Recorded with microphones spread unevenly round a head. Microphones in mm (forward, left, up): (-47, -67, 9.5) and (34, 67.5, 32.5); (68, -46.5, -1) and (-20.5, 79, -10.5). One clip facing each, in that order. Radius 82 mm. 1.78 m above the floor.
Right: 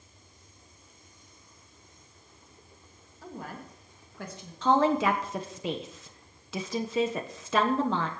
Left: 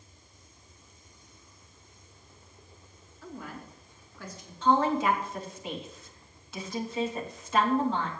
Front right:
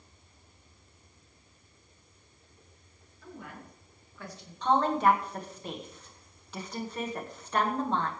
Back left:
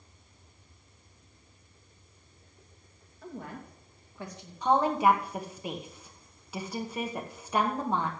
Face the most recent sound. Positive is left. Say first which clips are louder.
# right 1 dB, back left 1 dB
turn(degrees=-150)